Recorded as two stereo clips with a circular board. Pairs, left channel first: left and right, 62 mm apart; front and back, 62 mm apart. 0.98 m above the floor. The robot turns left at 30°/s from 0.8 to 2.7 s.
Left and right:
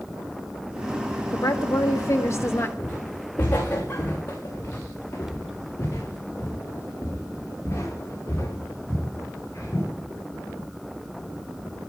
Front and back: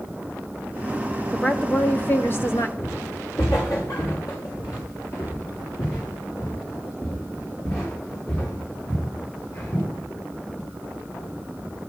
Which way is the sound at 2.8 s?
30° left.